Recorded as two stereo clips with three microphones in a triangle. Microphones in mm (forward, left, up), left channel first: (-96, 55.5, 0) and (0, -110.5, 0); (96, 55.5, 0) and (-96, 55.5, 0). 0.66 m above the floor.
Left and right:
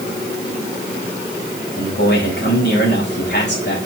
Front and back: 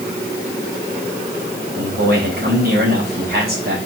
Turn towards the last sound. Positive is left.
turn(degrees=145)